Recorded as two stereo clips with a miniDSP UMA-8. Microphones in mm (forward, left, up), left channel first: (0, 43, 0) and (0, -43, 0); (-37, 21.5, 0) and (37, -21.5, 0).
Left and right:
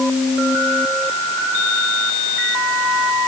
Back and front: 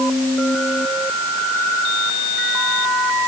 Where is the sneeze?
No sneeze in this recording.